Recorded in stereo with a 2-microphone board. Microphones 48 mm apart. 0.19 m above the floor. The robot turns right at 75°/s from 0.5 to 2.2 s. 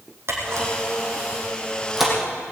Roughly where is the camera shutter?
Right.